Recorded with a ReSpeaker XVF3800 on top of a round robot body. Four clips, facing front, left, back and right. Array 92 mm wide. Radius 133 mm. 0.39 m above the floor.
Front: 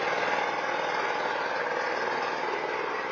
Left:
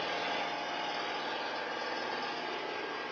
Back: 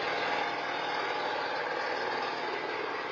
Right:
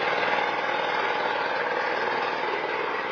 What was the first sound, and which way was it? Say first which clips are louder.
An engine running: right 11 dB, front 4 dB; 70° right.